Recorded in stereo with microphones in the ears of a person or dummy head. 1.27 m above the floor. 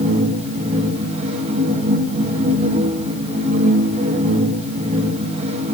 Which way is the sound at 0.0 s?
35° right (ahead or behind).